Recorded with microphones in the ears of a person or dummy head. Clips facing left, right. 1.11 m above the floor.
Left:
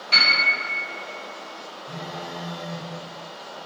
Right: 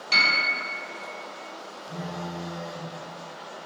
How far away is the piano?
About 1.3 m.